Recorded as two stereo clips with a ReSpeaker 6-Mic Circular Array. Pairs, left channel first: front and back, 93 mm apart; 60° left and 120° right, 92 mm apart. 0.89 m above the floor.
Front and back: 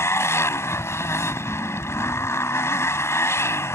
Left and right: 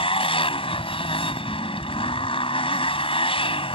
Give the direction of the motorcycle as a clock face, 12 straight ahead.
10 o'clock.